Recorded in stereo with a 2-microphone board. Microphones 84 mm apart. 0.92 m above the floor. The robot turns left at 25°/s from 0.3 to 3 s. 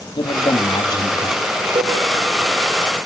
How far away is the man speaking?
About 1.8 m.